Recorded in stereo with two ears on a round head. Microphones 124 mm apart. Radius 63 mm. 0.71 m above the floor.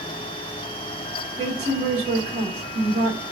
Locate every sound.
1.4 s a woman speaking: 50° right (ahead or behind), 2 m